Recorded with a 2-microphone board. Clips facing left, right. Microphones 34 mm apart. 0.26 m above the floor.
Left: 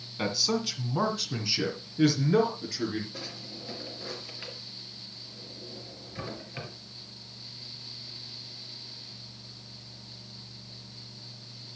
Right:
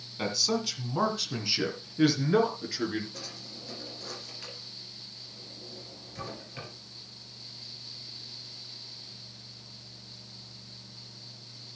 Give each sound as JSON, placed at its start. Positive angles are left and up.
{"t": 0.2, "sound": "a man speaking", "side_deg": 10, "distance_m": 2.0}
{"t": 3.1, "sound": "a drawer", "side_deg": 25, "distance_m": 2.5}